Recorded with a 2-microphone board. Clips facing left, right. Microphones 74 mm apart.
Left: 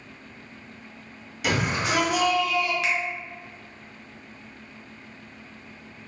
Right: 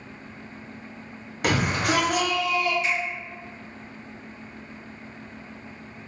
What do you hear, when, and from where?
1.4 s a shout: 50° right (ahead or behind), 0.8 m; by 2.7 s 35° right (ahead or behind), 0.9 m
2.8 s a finger snap: 75° left (ahead or behind), 0.5 m